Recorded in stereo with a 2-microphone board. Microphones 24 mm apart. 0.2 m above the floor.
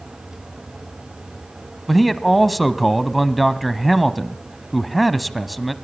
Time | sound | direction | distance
1.9 | a man speaking | 5° left (ahead or behind) | 1.0 m